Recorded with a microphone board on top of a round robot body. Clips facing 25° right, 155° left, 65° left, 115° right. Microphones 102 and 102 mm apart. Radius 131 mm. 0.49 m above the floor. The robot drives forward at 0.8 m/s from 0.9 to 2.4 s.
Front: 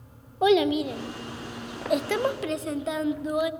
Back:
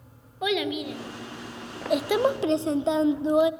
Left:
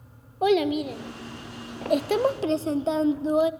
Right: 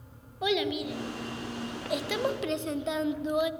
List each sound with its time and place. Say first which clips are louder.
0.4 s a child speaking: front 7 dB, left 7 dB; 30° left, 1.3 m; by 3.5 s 105° left, 0.9 m